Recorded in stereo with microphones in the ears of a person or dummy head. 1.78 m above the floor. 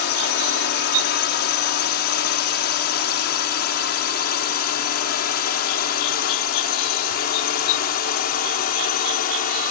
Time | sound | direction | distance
0.0 | a drone | 60° left (ahead or behind) | ?